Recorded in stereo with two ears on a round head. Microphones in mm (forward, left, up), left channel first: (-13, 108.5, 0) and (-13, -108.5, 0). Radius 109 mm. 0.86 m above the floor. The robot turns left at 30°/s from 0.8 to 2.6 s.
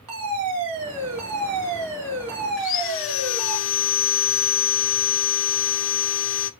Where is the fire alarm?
85° right, 4.5 m; by 3.6 s 135° right, 4.5 m.